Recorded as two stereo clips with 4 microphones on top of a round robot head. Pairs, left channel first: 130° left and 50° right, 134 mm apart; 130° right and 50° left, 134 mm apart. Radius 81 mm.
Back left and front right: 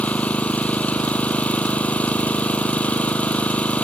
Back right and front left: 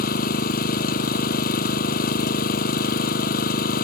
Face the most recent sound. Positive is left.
turn(degrees=-150)